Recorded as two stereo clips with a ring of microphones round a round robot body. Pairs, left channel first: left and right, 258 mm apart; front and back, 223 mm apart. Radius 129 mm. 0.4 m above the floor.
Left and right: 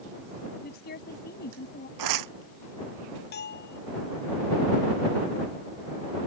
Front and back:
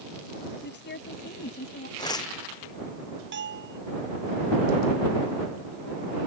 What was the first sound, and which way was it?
A woman speaking, 35° left.